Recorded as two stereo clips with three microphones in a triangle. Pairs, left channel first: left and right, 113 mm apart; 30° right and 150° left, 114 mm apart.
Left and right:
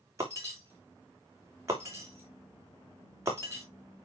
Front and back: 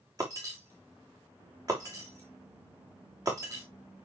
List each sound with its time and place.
0.2 s breaking glass: 155° right, 3 m